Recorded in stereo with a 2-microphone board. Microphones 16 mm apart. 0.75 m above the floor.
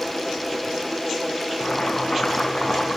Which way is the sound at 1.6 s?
80° left.